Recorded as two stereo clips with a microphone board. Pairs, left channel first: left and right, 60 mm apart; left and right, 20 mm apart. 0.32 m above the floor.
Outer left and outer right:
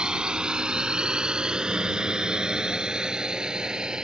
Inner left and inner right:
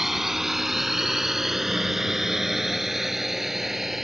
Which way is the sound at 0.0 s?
15° right (ahead or behind).